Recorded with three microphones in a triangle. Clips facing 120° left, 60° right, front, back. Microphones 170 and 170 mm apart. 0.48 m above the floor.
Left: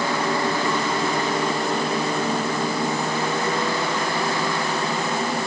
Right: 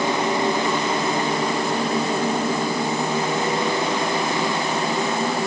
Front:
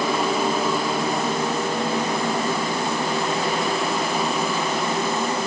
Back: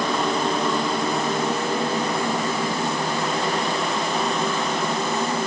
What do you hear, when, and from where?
Only background noise.